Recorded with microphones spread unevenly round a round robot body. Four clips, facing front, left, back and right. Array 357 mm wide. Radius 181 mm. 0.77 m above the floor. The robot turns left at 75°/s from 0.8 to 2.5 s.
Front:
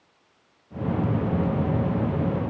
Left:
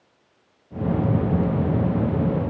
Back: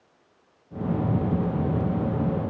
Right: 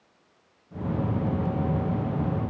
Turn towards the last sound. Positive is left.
No sound to turn to.